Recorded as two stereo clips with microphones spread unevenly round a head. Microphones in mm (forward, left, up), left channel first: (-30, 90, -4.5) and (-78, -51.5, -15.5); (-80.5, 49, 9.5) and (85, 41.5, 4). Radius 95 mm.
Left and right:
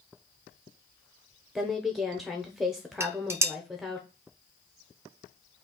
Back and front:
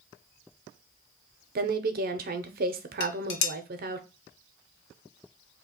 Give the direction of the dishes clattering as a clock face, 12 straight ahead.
6 o'clock.